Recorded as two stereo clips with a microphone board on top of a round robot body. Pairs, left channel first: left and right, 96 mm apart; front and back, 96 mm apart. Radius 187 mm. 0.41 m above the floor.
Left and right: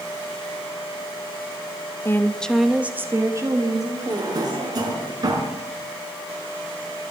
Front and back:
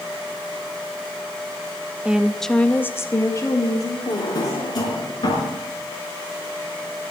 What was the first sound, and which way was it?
A woman speaking, 115° left.